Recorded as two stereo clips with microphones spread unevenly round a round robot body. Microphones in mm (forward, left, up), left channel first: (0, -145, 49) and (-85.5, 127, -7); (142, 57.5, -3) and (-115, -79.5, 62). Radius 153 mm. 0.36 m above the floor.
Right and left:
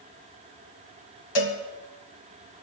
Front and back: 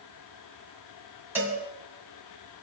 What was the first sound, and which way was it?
A cowbell, 65° right.